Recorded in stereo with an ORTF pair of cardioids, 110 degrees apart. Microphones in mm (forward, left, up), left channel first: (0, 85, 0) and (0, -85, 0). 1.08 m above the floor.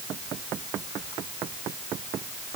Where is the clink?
No clink in this recording.